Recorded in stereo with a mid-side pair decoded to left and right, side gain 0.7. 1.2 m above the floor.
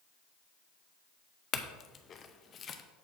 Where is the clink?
35° left, 0.7 m.